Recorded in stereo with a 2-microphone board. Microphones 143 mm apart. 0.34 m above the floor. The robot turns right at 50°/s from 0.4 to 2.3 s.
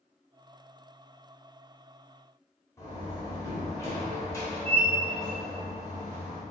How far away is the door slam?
About 0.9 m.